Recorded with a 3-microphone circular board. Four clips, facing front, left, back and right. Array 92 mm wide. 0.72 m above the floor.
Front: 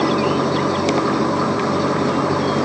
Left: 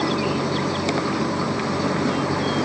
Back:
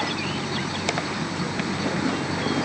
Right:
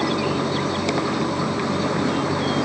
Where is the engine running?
5° right.